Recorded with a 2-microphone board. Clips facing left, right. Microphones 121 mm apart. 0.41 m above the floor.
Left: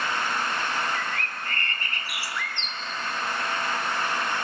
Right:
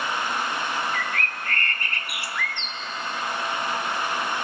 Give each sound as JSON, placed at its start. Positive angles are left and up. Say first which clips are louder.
{"t": 0.9, "sound": "a bird", "louder": "right 2 dB", "side_deg": -60, "distance_m": 0.8}